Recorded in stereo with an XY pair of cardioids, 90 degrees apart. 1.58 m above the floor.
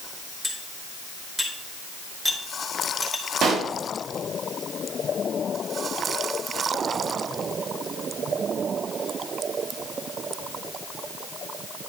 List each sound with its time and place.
0.4 s cutlery clinking: 15° right, 3.5 m
3.4 s a pop: 70° right, 1.6 m